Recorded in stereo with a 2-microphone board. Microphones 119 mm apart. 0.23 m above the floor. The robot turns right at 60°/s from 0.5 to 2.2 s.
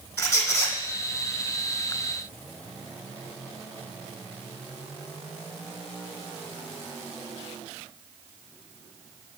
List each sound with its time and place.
0.2 s a squeak: 20° left (ahead or behind), 1.4 m; by 0.8 s 5° left (ahead or behind), 1.4 m